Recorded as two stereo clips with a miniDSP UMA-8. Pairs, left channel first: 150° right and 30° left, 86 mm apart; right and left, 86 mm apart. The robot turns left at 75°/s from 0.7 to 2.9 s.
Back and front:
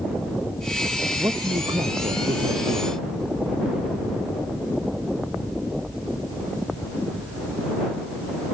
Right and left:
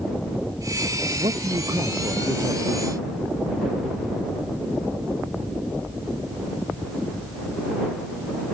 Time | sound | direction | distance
1.2 | a man speaking | 85° left | ?